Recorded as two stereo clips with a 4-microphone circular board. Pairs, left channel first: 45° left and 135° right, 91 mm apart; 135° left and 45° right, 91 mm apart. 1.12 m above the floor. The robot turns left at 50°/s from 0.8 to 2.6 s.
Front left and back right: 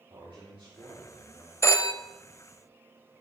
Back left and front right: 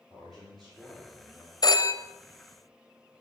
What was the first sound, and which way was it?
A man speaking, 135° right.